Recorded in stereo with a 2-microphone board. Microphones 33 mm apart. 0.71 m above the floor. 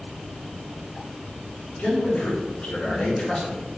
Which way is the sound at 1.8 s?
55° left (ahead or behind).